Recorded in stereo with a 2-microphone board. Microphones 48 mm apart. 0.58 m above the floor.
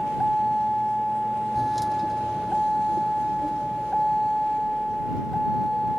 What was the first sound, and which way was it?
A vehicle, centre (ahead or behind).